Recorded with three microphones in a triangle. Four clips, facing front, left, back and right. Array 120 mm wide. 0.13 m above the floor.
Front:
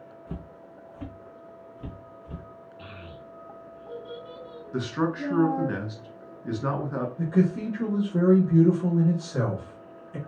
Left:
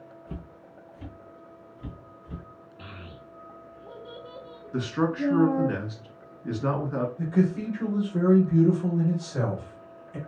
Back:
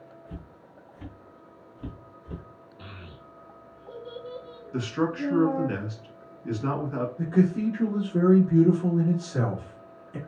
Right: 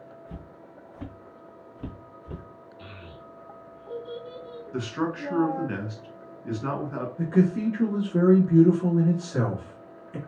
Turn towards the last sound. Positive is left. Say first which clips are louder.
# right 4 dB, back 1 dB
turn(degrees=-90)